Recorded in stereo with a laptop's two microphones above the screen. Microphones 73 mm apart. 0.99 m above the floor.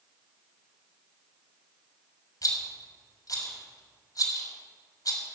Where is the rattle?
55° left (ahead or behind), 5 m.